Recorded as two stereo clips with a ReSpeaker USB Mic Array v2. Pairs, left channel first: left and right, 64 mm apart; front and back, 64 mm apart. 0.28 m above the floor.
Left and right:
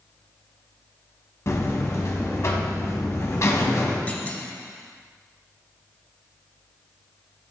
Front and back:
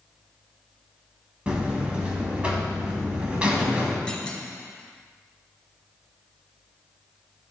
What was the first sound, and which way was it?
A buzzer, 110° left.